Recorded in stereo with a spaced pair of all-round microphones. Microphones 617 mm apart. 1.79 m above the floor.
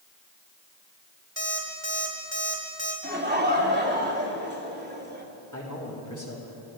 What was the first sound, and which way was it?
An alarm clock, 45° right (ahead or behind).